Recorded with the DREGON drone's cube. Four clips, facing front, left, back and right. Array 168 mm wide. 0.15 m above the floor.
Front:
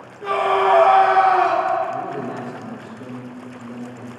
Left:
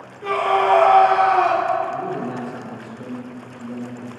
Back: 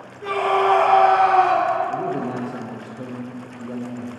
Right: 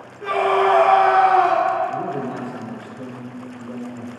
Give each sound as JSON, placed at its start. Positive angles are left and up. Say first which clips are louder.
{"t": 0.2, "sound": "a scream", "louder": "right 1 dB, front 1 dB", "azimuth_deg": -55, "distance_m": 3.0}
{"t": 1.9, "sound": "a man speaking", "louder": "even, back 2 dB", "azimuth_deg": -155, "distance_m": 3.5}